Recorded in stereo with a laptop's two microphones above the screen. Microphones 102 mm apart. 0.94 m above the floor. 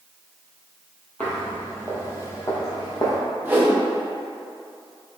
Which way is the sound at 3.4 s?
20° right (ahead or behind).